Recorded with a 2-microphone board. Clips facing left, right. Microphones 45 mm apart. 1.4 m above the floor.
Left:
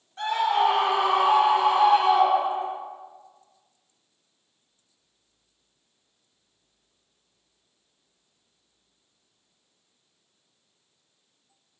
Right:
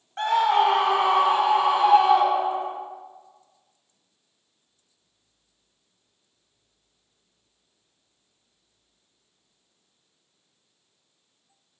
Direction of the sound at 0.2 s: 55° right (ahead or behind).